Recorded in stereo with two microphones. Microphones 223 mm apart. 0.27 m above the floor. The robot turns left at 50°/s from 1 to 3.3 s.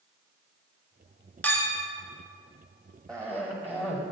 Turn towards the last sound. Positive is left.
turn(degrees=10)  # may be behind; listen again after turning